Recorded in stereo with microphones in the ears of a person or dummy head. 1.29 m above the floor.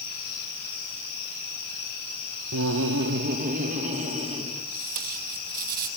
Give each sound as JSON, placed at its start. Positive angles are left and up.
{"t": 2.5, "sound": "laughter", "side_deg": -70, "distance_m": 0.5}
{"t": 4.7, "sound": "tape being pulled", "side_deg": -50, "distance_m": 2.5}